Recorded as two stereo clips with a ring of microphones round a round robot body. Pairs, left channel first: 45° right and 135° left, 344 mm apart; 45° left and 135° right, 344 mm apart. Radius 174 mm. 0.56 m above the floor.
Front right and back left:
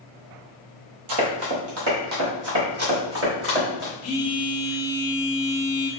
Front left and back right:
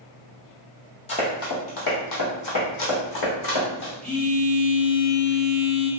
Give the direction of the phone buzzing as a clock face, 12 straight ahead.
1 o'clock.